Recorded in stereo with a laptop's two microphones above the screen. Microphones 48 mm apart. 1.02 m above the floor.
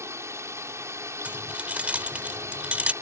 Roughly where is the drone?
Right.